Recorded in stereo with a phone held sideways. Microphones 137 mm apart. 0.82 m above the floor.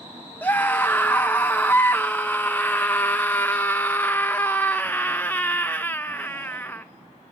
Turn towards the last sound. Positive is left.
turn(degrees=15)  # may be behind; listen again after turning